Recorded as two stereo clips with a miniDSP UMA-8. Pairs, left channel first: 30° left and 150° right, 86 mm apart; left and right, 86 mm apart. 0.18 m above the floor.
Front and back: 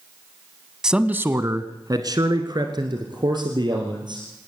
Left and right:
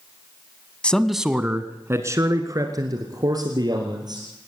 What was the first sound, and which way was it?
A man speaking, 140° left.